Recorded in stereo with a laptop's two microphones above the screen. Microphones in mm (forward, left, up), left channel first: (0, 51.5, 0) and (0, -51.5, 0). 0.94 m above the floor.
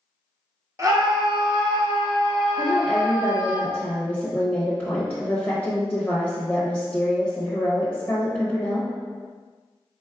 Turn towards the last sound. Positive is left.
turn(degrees=10)  # may be behind; listen again after turning